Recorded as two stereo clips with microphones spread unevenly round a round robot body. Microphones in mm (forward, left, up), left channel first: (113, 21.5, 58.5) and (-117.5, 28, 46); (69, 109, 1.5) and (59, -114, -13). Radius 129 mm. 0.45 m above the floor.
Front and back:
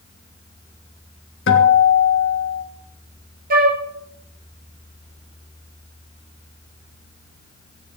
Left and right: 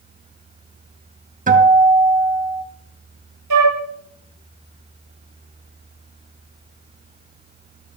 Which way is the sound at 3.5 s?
125° right.